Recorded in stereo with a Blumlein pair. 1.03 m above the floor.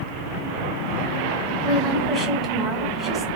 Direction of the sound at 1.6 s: 10° right.